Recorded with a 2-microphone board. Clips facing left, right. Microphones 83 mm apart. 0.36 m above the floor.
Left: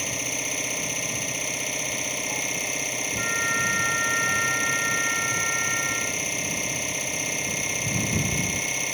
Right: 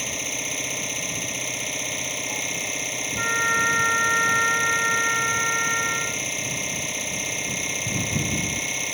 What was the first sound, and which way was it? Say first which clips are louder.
An engine running: even; centre (ahead or behind).